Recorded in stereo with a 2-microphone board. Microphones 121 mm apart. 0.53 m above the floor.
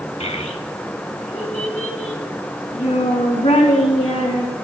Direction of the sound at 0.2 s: 65° left (ahead or behind).